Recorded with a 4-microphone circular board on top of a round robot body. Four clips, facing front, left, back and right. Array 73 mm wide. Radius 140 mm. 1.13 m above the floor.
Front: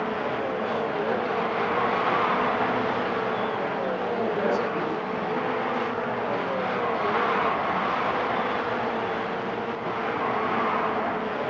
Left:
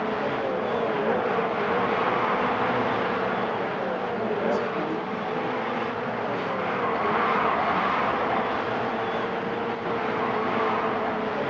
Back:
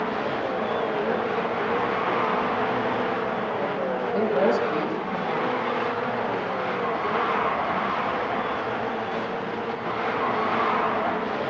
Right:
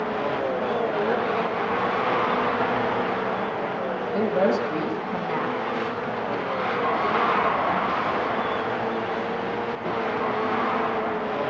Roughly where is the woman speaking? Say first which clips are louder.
Right 6 dB, back 5 dB; behind right.